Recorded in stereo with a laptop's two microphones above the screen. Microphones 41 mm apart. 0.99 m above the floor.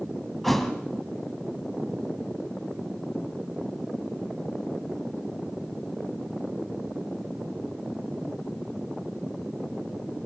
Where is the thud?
Centre (ahead or behind), 1.8 m.